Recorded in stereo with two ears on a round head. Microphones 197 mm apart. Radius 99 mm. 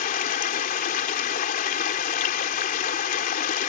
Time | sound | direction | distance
0.0 | running water | 40° left (ahead or behind) | ?